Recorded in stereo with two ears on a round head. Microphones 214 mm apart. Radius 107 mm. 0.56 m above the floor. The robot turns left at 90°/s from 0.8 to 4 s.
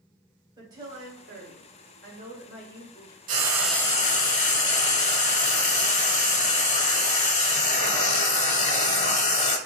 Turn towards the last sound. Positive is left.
turn(degrees=150)